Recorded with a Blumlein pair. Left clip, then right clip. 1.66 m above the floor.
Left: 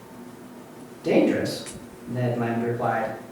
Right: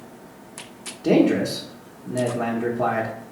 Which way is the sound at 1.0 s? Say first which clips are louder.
Right 2 dB; 20° right.